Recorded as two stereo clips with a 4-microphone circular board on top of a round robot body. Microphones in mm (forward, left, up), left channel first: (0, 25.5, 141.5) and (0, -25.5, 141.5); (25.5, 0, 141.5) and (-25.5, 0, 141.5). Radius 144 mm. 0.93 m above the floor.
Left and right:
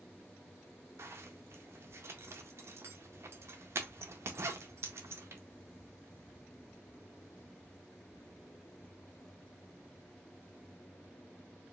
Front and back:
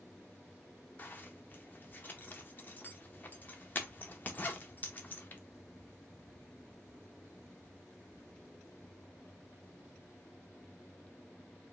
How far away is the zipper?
About 0.6 m.